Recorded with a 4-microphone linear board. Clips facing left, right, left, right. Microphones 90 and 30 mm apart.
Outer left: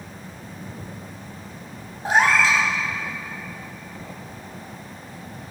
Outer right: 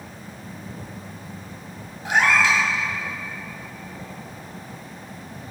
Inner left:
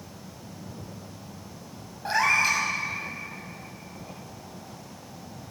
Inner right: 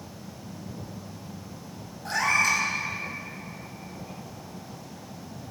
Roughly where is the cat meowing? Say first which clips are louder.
Outer left 1 dB, inner left 1 dB; left.